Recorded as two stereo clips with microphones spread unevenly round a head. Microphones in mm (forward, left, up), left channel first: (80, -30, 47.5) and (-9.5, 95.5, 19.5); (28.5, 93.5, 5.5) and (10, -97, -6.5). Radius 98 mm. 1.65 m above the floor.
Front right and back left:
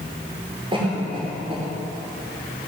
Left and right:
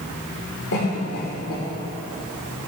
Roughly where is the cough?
Ahead left.